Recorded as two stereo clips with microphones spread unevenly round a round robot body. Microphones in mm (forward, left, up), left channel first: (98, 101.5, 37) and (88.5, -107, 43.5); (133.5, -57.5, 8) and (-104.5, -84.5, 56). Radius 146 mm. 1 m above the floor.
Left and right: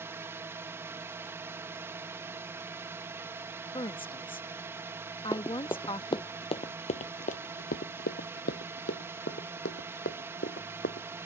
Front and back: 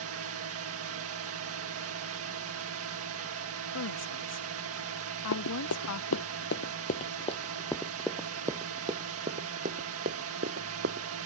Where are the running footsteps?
10° left; by 11.1 s 145° left.